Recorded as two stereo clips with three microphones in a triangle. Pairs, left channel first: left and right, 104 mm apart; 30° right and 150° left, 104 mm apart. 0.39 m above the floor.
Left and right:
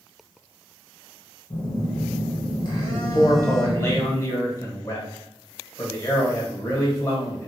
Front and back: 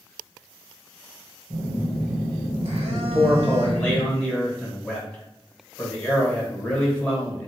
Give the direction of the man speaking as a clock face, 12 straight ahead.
11 o'clock.